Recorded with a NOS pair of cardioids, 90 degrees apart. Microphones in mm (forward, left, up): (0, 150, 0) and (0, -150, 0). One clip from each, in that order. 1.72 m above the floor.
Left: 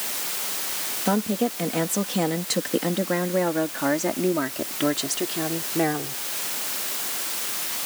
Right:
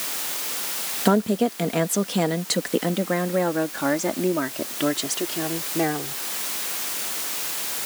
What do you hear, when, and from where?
1.1 s a woman speaking: 65° right; by 6.2 s 5° left